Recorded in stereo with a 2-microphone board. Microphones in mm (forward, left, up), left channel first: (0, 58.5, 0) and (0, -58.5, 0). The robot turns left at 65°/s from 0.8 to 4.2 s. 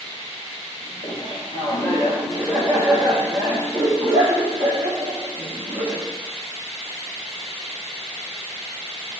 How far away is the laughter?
About 6 m.